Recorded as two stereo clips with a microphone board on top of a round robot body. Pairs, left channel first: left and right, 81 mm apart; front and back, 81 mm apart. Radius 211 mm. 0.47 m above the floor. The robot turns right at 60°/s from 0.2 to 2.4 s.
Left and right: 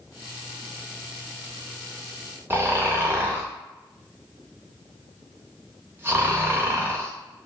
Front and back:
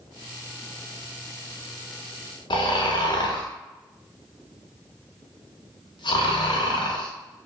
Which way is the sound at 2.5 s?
25° right.